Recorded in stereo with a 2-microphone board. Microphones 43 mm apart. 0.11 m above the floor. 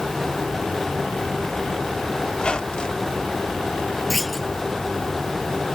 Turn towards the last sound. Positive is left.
turn(degrees=-5)  # may be behind; listen again after turning